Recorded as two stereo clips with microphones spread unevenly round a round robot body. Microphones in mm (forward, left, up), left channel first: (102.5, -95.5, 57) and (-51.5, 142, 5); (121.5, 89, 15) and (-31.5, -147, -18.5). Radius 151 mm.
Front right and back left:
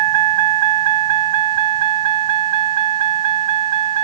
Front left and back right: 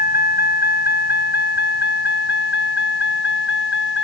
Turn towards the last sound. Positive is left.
turn(degrees=110)